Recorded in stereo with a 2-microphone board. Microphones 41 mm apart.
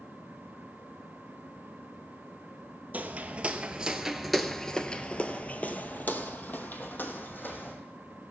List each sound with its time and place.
2.9 s footsteps: 40° right (ahead or behind), 1.1 m; by 7.8 s 50° left (ahead or behind), 2 m